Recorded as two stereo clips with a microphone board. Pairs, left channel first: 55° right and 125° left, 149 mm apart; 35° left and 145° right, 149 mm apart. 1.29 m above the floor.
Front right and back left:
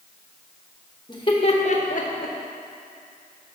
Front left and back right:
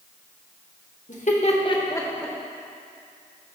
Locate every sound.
1.1 s laughter: 5° left, 1.2 m; by 2.4 s 55° right, 1.0 m